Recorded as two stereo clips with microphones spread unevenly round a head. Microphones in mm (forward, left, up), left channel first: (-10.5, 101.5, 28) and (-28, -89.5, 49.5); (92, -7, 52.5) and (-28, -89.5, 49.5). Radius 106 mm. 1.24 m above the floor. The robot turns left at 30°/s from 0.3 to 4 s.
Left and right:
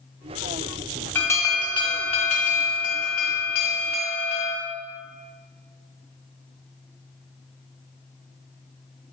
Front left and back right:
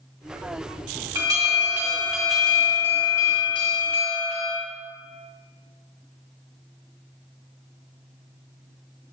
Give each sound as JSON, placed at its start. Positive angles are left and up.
{"t": 1.1, "sound": "an alarm", "azimuth_deg": 160, "distance_m": 0.7}